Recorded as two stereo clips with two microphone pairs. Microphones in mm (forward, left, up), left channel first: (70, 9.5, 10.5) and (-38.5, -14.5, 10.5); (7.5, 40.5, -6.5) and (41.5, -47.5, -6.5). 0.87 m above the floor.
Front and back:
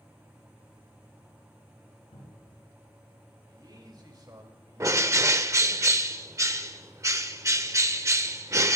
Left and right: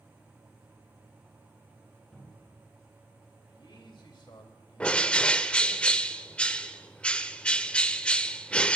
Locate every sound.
2.1 s a cupboard door: 30° left, 9 m
3.5 s a man speaking: 140° left, 3 m
4.8 s a bird: straight behind, 0.6 m